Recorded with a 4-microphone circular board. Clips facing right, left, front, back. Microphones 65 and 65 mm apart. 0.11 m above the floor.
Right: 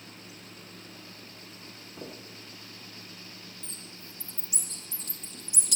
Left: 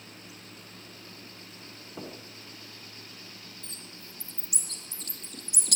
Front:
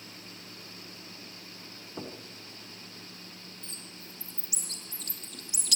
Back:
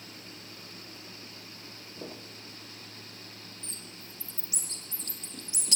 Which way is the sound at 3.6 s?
120° left.